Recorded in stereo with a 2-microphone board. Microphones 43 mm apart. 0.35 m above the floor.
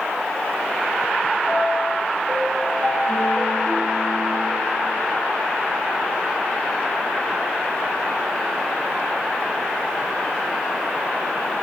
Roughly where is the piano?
Right.